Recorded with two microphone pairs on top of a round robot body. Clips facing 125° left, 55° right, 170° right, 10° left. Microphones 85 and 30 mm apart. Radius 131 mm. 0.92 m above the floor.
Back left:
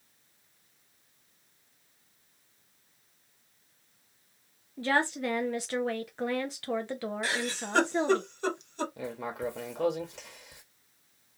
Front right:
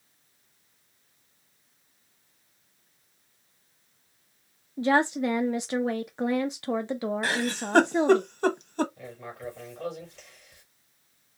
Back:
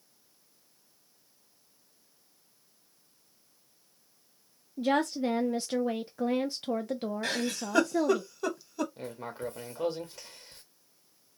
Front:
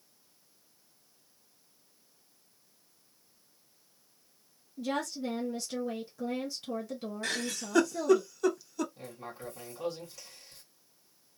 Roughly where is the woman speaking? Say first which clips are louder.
Front right 5 dB, back 6 dB; behind right.